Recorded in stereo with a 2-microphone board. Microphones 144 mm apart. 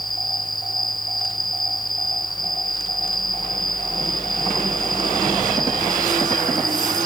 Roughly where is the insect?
Left.